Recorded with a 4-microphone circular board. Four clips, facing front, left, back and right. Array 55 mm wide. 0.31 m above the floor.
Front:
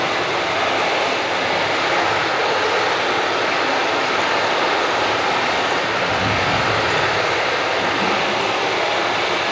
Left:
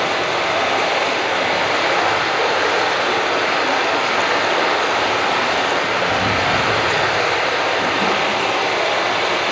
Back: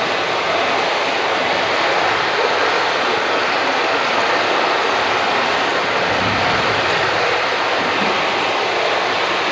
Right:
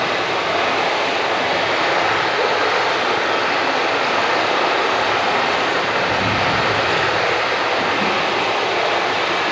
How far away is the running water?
About 9.5 m.